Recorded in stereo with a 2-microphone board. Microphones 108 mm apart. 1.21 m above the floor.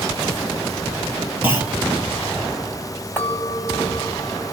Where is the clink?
20° left (ahead or behind), 2 m.